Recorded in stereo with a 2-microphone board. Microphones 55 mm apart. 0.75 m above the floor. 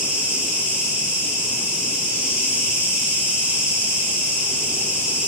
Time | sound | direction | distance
0.0 | an insect | 20° right (ahead or behind) | 3 m